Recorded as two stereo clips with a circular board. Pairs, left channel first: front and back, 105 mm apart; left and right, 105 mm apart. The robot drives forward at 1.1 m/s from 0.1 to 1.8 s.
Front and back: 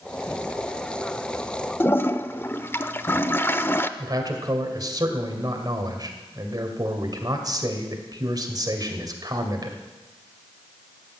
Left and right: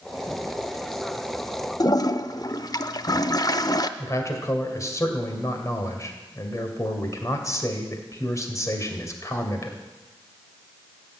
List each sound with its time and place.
1.8 s a toilet flushing: 60° left, 0.5 m
4.0 s a man speaking: 140° left, 2 m